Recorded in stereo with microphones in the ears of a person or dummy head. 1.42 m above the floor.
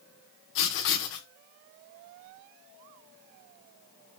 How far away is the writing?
About 1.1 m.